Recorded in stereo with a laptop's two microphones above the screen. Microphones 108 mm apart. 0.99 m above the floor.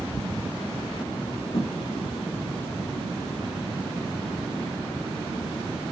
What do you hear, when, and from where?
1.5 s a thud: 80° left, 6.5 m